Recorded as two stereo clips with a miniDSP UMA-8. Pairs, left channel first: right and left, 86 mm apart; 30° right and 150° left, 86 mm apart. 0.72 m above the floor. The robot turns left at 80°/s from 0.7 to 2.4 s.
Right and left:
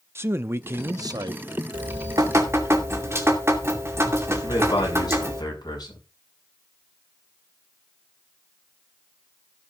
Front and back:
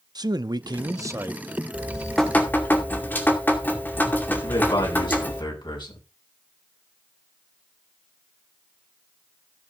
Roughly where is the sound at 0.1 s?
Behind left.